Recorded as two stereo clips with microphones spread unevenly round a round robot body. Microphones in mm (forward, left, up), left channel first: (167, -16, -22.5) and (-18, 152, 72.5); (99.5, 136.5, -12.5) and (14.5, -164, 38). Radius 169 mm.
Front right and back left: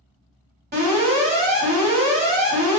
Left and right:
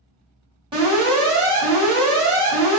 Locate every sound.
0.7 s an alarm: straight behind, 1.5 m